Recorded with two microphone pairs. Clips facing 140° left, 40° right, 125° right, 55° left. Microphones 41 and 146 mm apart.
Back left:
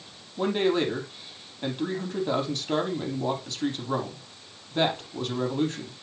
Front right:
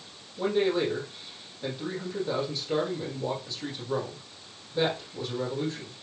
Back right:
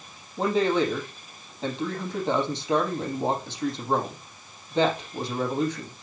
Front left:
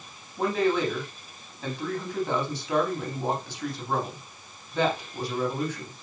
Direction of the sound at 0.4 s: 170° left.